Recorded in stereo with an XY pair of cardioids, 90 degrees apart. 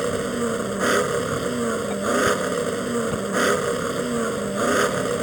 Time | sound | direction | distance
0.0 | an engine running | 15° right | ?